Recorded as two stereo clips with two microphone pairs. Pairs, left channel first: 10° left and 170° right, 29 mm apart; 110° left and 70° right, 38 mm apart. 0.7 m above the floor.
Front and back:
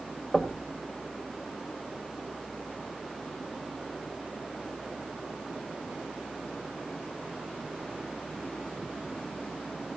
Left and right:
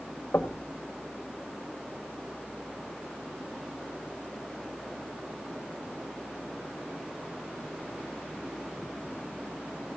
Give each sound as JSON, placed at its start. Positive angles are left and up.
{"t": 0.3, "sound": "knocking", "azimuth_deg": 105, "distance_m": 1.8}